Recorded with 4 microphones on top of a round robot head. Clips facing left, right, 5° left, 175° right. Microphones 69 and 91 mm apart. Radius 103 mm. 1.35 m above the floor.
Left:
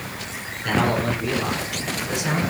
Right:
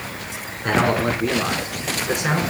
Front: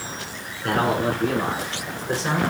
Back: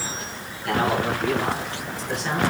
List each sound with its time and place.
0.6 s a man speaking: 35° right, 5.5 m; by 2.4 s 55° right, 6 m